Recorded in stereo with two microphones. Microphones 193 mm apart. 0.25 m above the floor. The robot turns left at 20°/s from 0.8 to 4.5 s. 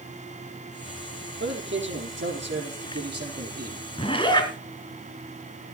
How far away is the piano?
I don't hear a piano.